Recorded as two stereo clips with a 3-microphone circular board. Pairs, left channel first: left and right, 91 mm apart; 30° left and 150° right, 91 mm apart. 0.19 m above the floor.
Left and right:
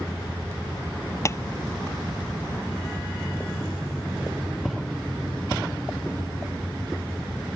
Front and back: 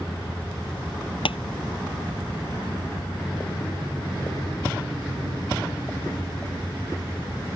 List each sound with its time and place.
1.2 s tapping: 35° left